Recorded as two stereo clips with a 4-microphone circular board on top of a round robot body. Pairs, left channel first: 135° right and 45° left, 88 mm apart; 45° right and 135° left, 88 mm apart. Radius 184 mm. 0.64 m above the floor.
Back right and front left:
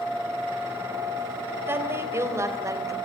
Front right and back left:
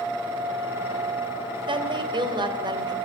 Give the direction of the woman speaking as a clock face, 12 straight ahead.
8 o'clock.